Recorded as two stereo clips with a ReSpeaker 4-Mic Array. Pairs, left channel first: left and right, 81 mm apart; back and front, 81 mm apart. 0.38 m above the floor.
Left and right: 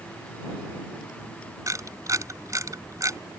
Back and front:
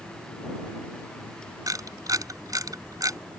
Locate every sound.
1.7 s a camera shutter: 45° right